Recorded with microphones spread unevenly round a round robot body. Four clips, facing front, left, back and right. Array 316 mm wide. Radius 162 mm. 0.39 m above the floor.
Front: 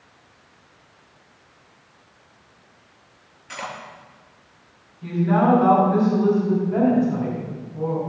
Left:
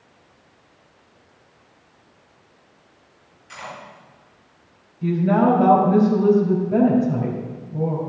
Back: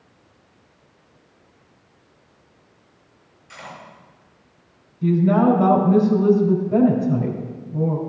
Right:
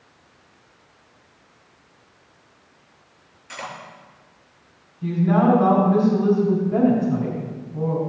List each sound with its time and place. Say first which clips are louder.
3.5 s cutlery clinking: right 2 dB, front 6 dB; 20° right, 5 m
5.0 s a woman speaking: left 1 dB, back 3 dB; 155° left, 2.5 m